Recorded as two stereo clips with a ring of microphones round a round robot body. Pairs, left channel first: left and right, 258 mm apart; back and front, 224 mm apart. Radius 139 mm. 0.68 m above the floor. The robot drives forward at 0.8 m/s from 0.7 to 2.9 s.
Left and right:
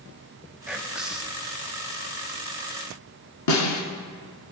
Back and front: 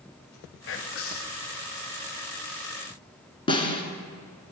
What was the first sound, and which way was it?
Whispering, 175° right.